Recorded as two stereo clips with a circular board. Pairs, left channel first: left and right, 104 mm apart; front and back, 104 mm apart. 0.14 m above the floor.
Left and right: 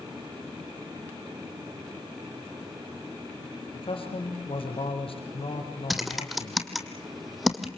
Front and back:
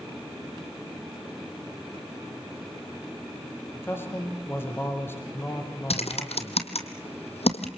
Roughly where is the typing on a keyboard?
Ahead.